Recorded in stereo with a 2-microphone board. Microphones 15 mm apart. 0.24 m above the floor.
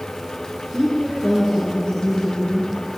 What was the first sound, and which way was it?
A woman speaking, 70° left (ahead or behind).